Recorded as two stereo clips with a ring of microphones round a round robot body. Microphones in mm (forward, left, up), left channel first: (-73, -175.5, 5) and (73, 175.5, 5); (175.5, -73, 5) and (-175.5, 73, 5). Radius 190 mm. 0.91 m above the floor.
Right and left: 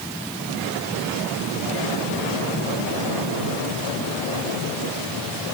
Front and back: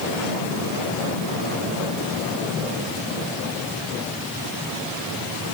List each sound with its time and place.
Only background noise.